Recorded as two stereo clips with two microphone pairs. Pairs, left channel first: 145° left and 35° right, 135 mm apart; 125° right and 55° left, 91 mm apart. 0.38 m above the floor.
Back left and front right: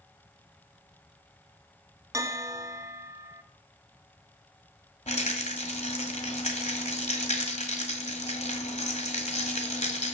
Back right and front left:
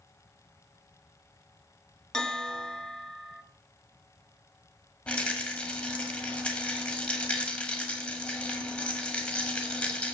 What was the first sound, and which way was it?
A bell, 60° right.